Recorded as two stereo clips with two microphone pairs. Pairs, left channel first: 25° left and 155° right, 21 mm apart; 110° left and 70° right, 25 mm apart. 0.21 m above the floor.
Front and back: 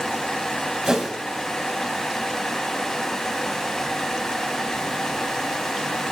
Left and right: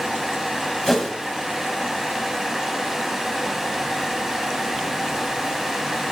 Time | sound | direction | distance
0.9 | a whoosh | 170° left | 1.6 m